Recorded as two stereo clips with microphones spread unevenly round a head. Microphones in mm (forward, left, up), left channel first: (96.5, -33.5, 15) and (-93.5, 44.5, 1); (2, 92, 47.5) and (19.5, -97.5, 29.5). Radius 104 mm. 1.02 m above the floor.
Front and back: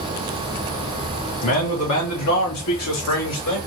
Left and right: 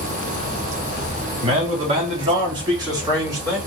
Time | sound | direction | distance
1.4 | a man speaking | 30° right | 2.5 m